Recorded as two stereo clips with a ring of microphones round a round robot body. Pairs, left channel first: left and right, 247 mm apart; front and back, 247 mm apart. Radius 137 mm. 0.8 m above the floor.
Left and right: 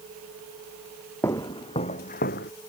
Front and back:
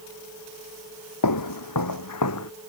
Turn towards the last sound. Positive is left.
turn(degrees=35)